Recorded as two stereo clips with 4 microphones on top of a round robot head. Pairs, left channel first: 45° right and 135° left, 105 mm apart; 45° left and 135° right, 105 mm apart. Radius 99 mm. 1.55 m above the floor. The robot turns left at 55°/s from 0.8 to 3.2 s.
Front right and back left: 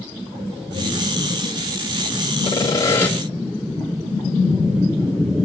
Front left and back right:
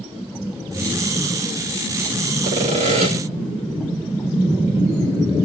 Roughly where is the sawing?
Right.